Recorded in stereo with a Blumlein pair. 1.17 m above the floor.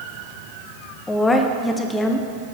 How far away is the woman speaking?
About 0.5 m.